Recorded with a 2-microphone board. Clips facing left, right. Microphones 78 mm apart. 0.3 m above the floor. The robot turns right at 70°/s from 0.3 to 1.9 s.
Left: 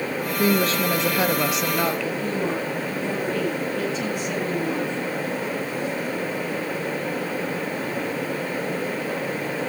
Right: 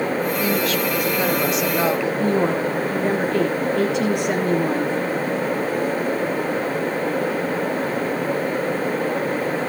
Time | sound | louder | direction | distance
0.4 | a woman speaking | even | 100° left | 1.5 m
2.2 | a woman speaking | right 6 dB | 70° right (ahead or behind) | 5.5 m